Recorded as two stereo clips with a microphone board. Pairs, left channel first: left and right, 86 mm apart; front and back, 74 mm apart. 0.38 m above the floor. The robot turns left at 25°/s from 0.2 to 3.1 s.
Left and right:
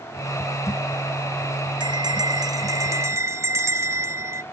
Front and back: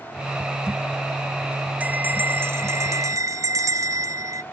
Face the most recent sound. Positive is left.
turn(degrees=-145)